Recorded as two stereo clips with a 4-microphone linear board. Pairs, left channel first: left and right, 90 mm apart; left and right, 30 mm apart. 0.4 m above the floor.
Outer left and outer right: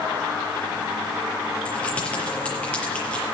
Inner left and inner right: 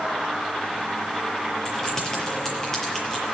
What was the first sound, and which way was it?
Keys jangling, 15° left (ahead or behind).